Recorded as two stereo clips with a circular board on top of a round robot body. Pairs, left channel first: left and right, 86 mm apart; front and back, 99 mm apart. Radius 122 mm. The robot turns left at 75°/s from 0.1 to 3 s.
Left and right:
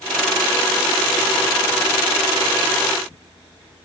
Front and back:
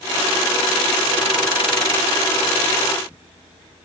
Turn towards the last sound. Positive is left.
No sound to turn to.